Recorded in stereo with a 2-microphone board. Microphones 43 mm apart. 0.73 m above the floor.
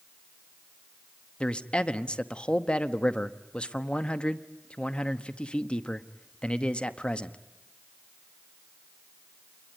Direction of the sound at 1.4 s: 25° left (ahead or behind).